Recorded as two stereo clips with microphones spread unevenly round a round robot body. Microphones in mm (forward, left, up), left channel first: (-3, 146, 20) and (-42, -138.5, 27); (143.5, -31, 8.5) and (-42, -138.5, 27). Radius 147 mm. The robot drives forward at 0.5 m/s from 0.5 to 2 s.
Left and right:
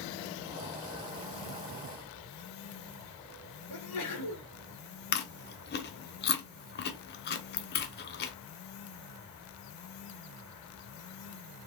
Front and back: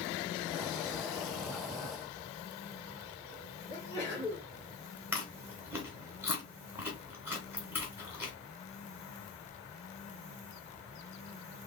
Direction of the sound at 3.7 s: 100° left.